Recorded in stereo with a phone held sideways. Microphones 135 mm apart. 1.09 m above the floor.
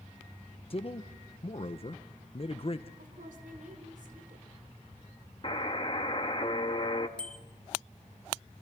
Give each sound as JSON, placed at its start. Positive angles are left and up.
{"t": 0.7, "sound": "a man speaking", "side_deg": 45, "distance_m": 0.9}
{"t": 3.0, "sound": "a woman speaking", "side_deg": -75, "distance_m": 4.0}
{"t": 5.4, "sound": "a buzzer", "side_deg": 40, "distance_m": 1.4}
{"t": 7.2, "sound": "a bicycle bell", "side_deg": 10, "distance_m": 3.0}